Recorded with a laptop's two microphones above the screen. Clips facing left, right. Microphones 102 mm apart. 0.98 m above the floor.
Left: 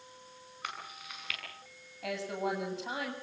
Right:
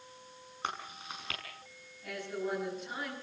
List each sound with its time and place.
0.6 s chewing: 30° right (ahead or behind), 5.5 m
2.0 s a woman speaking: 80° left, 7 m